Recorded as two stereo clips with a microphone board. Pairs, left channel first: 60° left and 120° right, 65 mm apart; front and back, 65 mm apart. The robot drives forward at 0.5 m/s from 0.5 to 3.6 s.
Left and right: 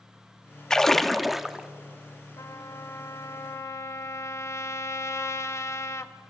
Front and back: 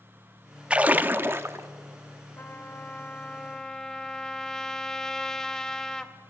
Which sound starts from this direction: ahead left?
A trumpet, at 2.4 s.